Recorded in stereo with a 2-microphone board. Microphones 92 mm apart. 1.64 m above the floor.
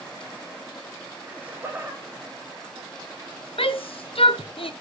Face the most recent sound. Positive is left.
turn(degrees=80)